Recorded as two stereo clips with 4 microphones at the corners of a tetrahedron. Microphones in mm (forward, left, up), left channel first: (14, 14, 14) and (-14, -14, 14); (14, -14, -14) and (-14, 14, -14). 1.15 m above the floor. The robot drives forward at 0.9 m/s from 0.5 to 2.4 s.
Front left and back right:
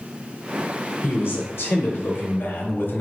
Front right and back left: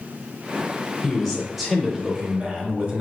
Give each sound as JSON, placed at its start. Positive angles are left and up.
{"t": 1.0, "sound": "a man speaking", "azimuth_deg": 40, "distance_m": 1.8}